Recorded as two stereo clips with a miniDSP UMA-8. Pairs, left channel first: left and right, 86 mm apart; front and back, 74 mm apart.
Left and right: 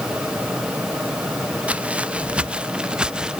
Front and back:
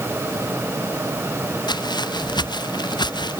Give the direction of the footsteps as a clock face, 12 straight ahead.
1 o'clock.